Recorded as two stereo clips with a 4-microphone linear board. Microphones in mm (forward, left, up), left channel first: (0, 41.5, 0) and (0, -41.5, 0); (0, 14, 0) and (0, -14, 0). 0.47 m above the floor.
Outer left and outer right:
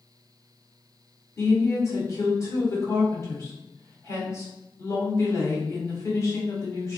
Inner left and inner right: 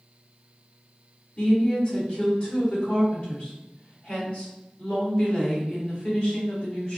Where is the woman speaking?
40° left (ahead or behind), 1.6 m.